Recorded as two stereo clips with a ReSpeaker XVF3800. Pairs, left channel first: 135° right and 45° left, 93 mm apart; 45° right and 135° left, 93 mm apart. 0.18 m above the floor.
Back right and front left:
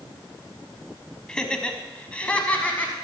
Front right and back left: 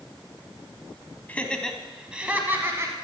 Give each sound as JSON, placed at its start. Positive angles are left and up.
{"t": 1.3, "sound": "laughter", "azimuth_deg": -70, "distance_m": 1.2}